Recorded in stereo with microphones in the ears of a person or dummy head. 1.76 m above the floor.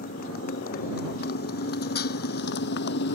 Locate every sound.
0.0 s a motorcycle: 50° left (ahead or behind); by 3.2 s 60° left (ahead or behind)